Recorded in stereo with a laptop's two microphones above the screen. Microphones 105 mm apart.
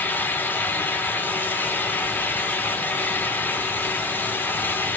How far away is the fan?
About 3 m.